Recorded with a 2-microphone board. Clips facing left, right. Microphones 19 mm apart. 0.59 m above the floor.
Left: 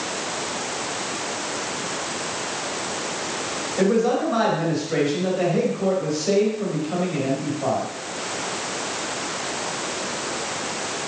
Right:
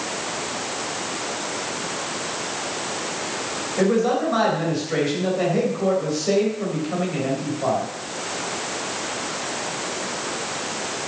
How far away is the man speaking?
About 3.5 m.